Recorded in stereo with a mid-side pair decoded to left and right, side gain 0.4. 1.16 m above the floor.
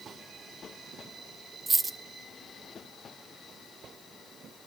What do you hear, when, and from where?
1.7 s a dropped coin: 35° right, 1.5 m